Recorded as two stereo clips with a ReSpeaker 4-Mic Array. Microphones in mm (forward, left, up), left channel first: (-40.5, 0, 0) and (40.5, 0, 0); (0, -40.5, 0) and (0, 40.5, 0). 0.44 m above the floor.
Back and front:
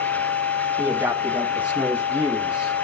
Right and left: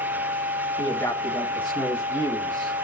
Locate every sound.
0.8 s a man speaking: 65° right, 4.5 m; by 2.7 s 75° right, 3.5 m